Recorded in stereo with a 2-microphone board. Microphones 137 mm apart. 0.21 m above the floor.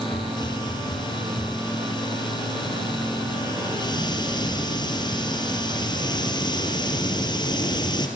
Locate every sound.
0.1 s a hiss: 30° left (ahead or behind), 2.5 m